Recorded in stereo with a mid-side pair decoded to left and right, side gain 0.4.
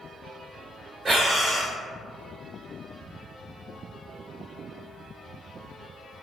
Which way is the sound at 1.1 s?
35° right.